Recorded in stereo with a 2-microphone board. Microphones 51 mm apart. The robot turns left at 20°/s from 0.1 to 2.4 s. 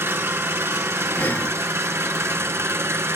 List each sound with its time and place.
0.0 s an engine running: 65° right, 1.4 m; by 3.2 s 110° right, 1.4 m
1.2 s breathing: 45° left (ahead or behind), 2.0 m